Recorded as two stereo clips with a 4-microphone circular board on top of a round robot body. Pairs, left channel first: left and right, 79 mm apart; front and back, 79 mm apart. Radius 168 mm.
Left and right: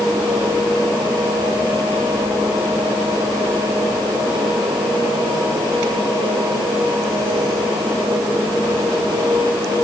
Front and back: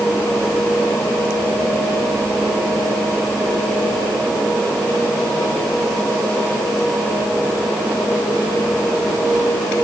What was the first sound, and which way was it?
Only background noise.